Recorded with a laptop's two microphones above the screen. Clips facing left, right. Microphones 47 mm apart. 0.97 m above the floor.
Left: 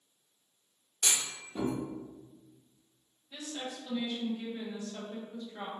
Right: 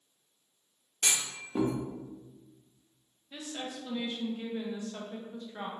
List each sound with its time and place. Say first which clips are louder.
1.0 s a clunk: right 1 dB; 45° right (ahead or behind), 0.7 m
3.3 s a woman speaking: right 1 dB; 20° right (ahead or behind), 0.6 m